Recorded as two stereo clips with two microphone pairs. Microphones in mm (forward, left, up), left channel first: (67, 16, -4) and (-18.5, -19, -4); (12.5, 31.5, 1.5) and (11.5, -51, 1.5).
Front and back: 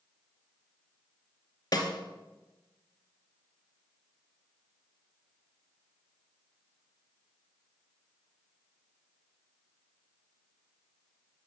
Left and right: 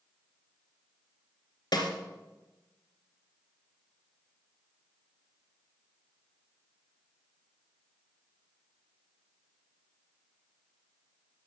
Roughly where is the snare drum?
Ahead left.